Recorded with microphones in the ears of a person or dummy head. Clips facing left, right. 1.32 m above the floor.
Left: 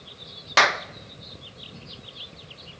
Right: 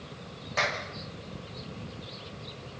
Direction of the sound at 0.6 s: 75° left (ahead or behind).